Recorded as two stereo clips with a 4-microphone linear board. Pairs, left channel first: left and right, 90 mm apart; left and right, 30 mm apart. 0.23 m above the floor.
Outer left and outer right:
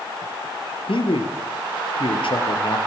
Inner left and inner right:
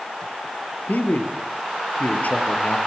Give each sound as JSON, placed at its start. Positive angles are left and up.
{"t": 0.9, "sound": "a man speaking", "side_deg": 75, "distance_m": 4.0}